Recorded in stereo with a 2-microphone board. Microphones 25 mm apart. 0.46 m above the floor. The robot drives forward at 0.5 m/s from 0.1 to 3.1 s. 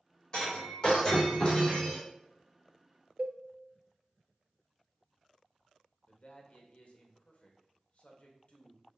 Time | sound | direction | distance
0.3 | breaking glass | 30° left (ahead or behind) | 3.5 m
3.2 | a cowbell | 50° right (ahead or behind) | 0.6 m
6.1 | a man speaking | 50° left (ahead or behind) | 1.3 m